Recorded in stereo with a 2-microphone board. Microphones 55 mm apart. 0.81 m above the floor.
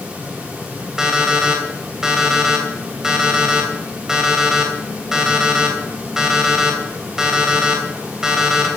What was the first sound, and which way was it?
An alarm clock, 10° right (ahead or behind).